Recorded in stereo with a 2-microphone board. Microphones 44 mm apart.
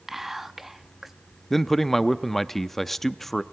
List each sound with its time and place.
0.1 s whispering: 10° right (ahead or behind), 0.6 m
1.5 s a man speaking: 5° left (ahead or behind), 0.6 m